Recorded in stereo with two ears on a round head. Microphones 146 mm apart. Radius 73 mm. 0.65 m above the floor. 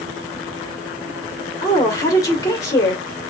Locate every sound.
1.6 s a woman speaking: 20° left (ahead or behind), 2 m